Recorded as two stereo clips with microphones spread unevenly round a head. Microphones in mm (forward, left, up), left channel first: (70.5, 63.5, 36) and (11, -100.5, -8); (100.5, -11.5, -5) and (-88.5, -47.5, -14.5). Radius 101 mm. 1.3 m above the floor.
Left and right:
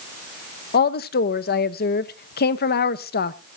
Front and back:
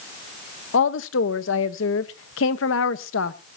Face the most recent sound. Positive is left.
turn(degrees=40)